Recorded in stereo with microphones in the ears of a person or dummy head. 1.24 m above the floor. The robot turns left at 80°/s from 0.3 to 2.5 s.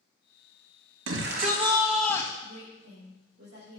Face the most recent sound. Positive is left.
turn(degrees=-80)